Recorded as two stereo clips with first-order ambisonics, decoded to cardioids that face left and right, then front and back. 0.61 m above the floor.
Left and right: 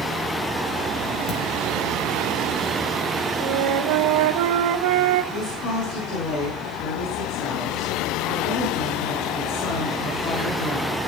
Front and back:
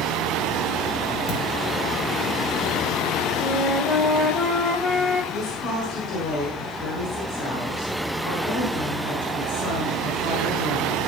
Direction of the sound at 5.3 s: 45° left.